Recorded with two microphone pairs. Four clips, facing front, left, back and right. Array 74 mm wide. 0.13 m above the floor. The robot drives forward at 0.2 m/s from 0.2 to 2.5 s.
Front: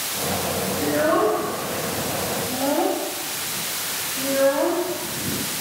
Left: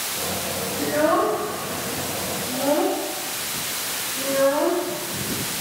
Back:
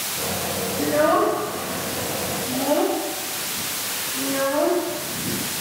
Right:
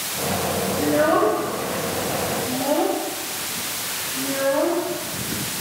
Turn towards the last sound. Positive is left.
turn(degrees=-155)